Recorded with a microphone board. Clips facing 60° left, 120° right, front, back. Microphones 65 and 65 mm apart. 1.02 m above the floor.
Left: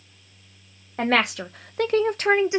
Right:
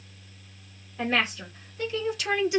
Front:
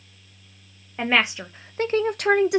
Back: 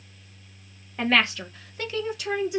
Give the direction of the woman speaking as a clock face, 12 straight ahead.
9 o'clock.